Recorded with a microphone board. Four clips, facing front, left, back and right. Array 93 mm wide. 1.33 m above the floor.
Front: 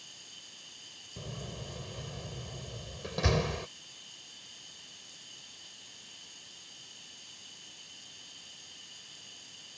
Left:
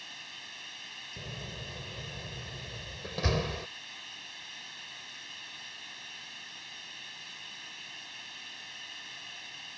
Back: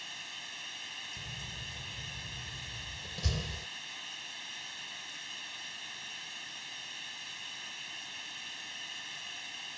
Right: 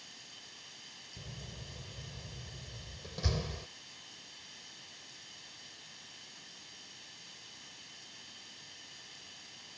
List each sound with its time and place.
0.0 s running water: 145° left
1.2 s a door slam: 30° left